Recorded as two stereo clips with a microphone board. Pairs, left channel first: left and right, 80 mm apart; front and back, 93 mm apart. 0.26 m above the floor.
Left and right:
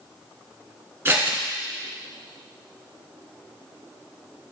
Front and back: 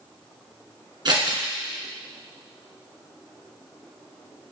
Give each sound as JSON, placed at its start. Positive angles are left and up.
{"t": 1.1, "sound": "scissors", "azimuth_deg": -150, "distance_m": 1.6}